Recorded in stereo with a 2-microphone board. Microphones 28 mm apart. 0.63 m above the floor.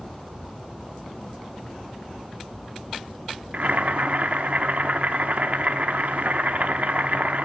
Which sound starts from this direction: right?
Boiling, at 3.5 s.